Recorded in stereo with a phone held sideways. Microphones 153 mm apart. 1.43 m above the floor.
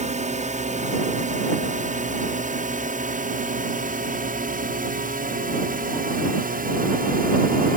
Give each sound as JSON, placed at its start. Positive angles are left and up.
{"t": 0.0, "sound": "a drone", "side_deg": -50}